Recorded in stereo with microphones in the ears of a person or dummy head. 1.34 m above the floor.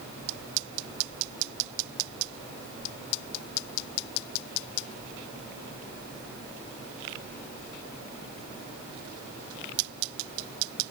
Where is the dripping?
I don't hear dripping.